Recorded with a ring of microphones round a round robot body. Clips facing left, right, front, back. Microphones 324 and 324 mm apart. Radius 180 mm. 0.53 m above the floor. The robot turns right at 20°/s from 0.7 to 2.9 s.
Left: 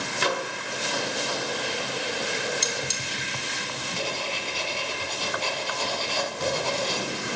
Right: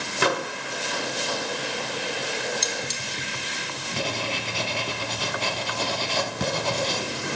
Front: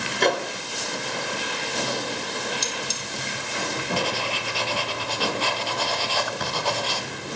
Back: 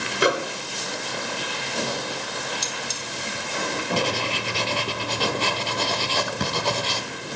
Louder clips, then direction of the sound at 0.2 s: Right 4 dB, back 1 dB; 100° right.